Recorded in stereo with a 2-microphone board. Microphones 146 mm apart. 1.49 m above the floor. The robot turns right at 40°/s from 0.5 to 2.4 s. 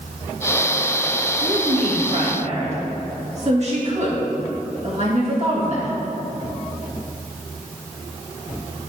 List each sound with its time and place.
1.4 s a woman speaking: 90° right, 2 m; by 5.9 s 50° right, 2 m